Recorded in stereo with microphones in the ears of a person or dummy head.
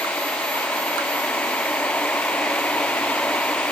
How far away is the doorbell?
No doorbell in this recording.